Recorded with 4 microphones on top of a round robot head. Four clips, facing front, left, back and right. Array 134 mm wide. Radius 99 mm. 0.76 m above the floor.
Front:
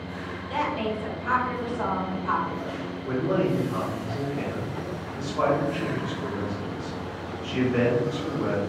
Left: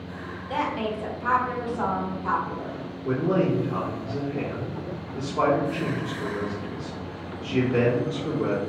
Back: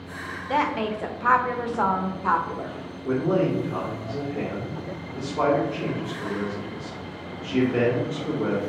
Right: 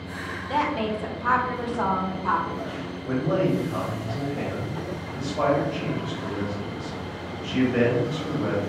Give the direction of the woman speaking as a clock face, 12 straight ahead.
6 o'clock.